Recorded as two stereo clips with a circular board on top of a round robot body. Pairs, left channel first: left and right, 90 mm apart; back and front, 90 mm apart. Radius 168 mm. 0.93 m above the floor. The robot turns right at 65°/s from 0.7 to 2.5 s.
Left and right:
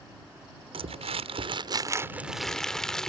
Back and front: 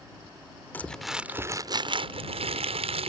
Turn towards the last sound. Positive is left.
turn(degrees=5)